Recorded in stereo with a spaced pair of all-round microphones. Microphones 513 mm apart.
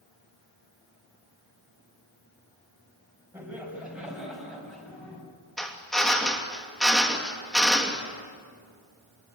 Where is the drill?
Centre (ahead or behind), 2.5 m.